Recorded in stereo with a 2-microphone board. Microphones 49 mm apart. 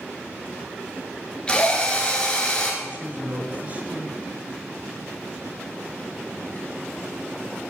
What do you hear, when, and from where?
1.5 s a drill: 20° left (ahead or behind), 2 m
2.8 s a man speaking: 35° right (ahead or behind), 3 m